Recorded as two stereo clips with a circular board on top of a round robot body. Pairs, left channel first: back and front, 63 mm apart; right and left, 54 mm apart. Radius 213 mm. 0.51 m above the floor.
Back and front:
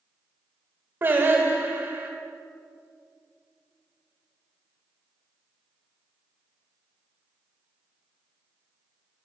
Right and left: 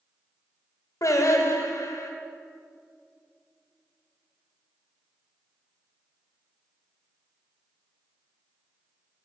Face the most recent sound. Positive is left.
turn(degrees=-60)